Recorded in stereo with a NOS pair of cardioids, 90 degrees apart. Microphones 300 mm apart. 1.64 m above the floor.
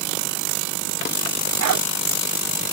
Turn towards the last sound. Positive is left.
turn(degrees=-70)